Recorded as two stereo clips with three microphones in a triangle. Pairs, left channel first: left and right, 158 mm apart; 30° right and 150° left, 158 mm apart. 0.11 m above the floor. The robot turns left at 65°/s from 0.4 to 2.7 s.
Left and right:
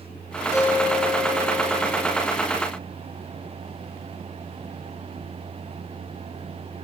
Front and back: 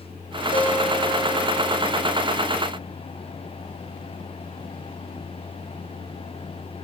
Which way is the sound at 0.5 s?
20° right.